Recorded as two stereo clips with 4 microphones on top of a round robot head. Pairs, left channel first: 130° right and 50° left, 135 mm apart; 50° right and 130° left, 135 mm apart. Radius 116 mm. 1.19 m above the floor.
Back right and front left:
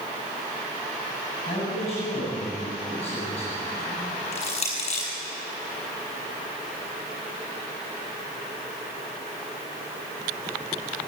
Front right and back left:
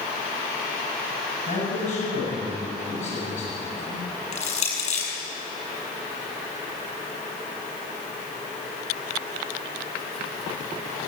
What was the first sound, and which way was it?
A man speaking, 85° right.